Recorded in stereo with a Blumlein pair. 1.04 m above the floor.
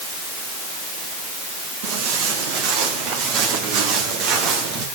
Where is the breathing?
No breathing in this recording.